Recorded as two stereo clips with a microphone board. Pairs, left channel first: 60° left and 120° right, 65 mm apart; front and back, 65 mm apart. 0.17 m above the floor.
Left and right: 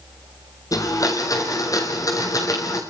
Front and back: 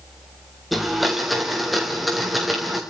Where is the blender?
90° left, 4.5 m.